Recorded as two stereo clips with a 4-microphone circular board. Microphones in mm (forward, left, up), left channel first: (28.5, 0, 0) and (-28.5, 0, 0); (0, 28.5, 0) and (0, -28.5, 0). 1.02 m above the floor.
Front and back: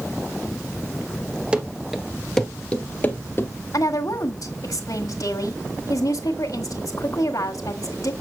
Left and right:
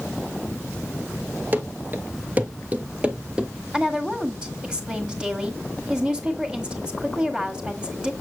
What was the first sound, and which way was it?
Running footsteps, 120° right.